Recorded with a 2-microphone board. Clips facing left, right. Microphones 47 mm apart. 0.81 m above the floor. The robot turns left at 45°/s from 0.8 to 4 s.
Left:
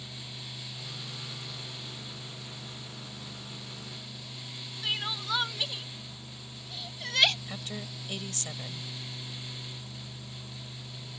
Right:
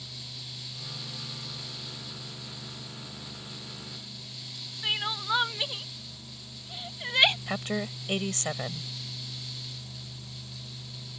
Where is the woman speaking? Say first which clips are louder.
Right 8 dB; 45° right (ahead or behind).